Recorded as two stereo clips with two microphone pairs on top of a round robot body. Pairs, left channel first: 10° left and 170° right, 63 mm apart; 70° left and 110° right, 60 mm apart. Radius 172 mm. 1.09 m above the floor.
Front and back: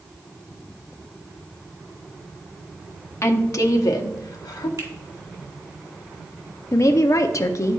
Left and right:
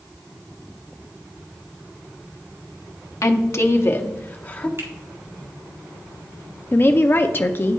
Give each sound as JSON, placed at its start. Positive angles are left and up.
{"t": 3.2, "sound": "a woman speaking", "azimuth_deg": 50, "distance_m": 0.9}
{"t": 4.8, "sound": "a finger snap", "azimuth_deg": -145, "distance_m": 2.5}
{"t": 6.7, "sound": "a woman speaking", "azimuth_deg": 35, "distance_m": 0.6}